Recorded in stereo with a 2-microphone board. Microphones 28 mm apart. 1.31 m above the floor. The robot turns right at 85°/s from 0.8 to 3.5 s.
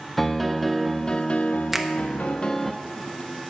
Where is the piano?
Straight ahead, 0.7 m; by 2.7 s 165° left, 0.7 m.